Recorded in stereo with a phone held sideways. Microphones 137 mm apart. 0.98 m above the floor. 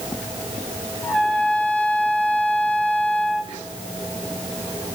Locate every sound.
1.0 s a trumpet: 10° left (ahead or behind), 1.2 m